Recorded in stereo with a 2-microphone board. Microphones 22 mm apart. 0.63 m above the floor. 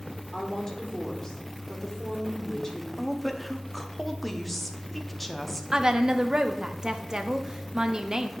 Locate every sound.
0.3 s a woman speaking: 25° left (ahead or behind), 1.7 m
3.0 s a woman speaking: 5° left (ahead or behind), 0.8 m
5.7 s a woman speaking: 30° right (ahead or behind), 0.6 m